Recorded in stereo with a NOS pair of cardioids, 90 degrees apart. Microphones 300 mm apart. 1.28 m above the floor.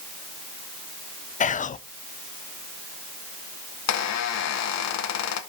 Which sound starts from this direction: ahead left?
Whispering, at 1.4 s.